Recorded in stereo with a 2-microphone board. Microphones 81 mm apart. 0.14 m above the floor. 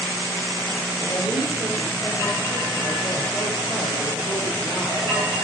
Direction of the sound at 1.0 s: 65° left (ahead or behind).